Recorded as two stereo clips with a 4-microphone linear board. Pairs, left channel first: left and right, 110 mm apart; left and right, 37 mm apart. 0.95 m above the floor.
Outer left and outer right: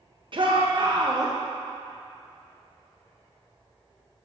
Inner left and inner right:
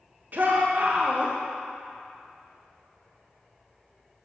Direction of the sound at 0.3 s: 50° right (ahead or behind).